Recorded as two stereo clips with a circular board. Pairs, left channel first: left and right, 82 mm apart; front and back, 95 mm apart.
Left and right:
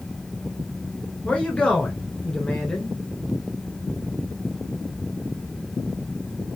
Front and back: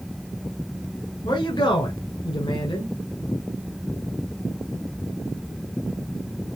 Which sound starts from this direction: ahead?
A man speaking, at 1.2 s.